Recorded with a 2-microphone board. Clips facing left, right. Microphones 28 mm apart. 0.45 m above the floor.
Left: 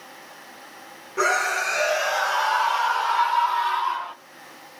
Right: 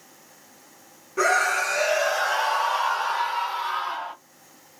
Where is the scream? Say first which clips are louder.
Right 1 dB; 10° left (ahead or behind), 1.6 m; by 4.1 s 50° left (ahead or behind), 2.0 m.